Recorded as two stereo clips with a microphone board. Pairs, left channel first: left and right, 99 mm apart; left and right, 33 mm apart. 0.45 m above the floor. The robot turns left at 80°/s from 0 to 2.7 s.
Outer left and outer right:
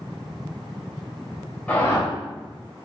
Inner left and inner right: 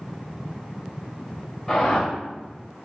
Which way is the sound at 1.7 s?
165° left.